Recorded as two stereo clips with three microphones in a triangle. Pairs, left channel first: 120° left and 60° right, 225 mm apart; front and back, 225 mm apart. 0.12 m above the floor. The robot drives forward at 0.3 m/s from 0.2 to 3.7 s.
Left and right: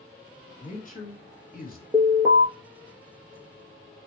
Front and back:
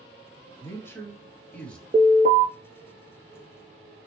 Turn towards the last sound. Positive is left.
turn(degrees=-145)